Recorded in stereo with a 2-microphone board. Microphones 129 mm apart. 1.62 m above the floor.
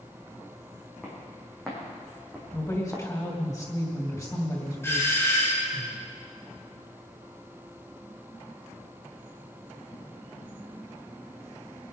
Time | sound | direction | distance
1.0 | footsteps | 5° left (ahead or behind) | 5.5 m
2.5 | a woman speaking | 25° left (ahead or behind) | 3 m
4.8 | a doorbell | 20° left (ahead or behind) | 3.5 m